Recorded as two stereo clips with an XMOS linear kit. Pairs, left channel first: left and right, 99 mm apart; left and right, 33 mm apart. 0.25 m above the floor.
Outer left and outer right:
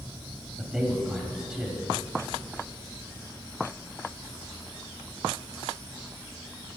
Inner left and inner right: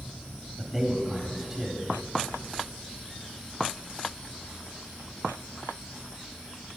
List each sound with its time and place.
0.6 s a man speaking: 5° right (ahead or behind), 1.0 m